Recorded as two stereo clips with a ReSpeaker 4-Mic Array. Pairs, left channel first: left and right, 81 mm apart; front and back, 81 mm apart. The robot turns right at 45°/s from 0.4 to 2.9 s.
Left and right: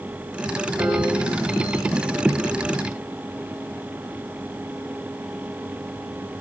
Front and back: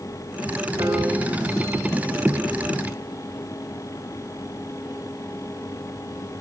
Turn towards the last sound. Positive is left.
turn(degrees=-75)